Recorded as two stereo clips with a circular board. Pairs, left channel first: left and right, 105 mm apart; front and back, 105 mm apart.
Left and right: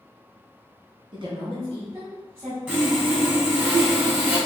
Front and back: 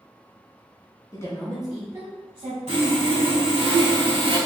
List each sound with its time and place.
1.1 s a woman speaking: 55° right, 1.2 m; by 2.6 s 155° right, 1.6 m
2.7 s sawing: 165° right, 1.5 m